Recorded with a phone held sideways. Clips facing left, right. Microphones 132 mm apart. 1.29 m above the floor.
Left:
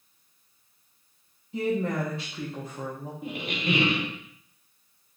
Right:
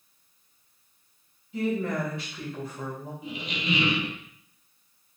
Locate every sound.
1.5 s a woman speaking: 35° left (ahead or behind), 1.0 m
3.2 s a squeak: 55° left (ahead or behind), 0.6 m